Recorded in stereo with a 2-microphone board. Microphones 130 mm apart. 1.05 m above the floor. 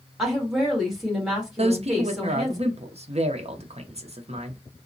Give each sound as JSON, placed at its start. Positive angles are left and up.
{"t": 0.2, "sound": "a woman speaking", "side_deg": 0, "distance_m": 1.4}
{"t": 1.6, "sound": "a man speaking", "side_deg": -55, "distance_m": 0.6}